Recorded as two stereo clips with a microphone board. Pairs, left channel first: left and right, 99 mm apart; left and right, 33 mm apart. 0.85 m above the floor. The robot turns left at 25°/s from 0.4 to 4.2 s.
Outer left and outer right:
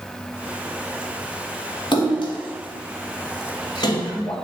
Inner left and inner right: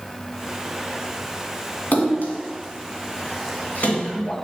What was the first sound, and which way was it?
A splash, 55° left (ahead or behind).